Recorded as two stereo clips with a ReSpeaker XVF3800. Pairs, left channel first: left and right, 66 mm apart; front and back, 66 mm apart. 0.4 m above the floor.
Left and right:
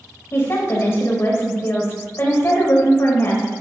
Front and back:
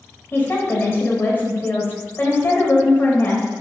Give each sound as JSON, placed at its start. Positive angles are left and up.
{"t": 0.3, "sound": "a woman speaking", "azimuth_deg": 50, "distance_m": 2.0}